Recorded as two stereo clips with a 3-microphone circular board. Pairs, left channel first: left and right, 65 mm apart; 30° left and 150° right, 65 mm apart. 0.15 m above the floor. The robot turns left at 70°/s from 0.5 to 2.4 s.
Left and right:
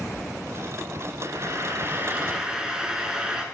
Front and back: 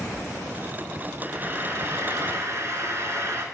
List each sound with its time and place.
1.2 s frying: 80° right, 0.6 m; by 3.5 s 165° right, 0.6 m